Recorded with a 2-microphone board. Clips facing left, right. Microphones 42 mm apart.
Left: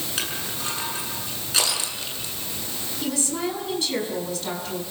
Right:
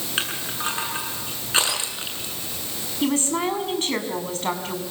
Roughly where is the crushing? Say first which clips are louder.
Right 5 dB; right.